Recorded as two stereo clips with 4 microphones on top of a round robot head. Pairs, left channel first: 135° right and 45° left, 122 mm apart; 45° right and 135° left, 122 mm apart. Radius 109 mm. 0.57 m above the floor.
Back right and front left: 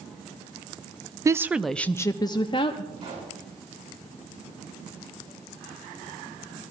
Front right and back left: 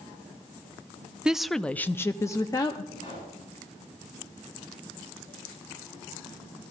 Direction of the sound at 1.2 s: 60° left.